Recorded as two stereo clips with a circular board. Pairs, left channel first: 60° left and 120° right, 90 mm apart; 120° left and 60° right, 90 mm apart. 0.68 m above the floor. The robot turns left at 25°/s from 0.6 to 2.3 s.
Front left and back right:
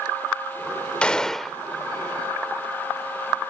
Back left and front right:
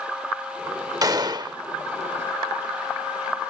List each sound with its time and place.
1.0 s a gunshot: 15° right; by 1.6 s 30° right